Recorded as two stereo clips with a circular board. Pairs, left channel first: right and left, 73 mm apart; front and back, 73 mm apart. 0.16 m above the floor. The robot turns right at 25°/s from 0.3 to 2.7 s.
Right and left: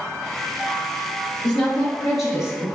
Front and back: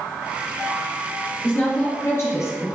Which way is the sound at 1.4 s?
15° right.